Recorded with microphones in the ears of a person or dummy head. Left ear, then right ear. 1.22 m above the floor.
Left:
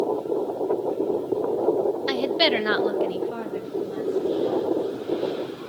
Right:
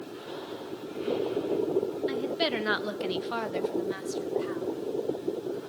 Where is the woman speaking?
45° left (ahead or behind), 0.9 m; by 4.7 s 75° right (ahead or behind), 2 m.